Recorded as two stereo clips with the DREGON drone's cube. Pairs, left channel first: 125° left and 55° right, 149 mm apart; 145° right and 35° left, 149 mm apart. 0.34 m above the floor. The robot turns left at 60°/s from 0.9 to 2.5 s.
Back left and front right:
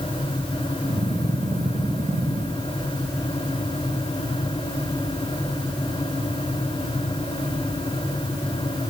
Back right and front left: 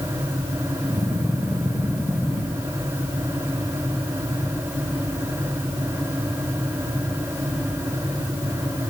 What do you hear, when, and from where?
Only background noise.